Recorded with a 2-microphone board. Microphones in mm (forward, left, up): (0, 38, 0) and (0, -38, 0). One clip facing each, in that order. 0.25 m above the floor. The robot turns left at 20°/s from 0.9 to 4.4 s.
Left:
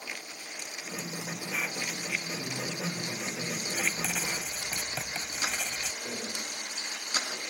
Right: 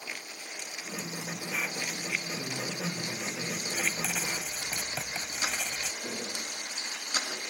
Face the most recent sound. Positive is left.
turn(degrees=-40)  # may be behind; listen again after turning